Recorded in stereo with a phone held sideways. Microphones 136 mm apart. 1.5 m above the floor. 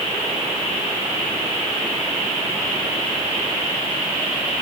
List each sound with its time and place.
Only background noise.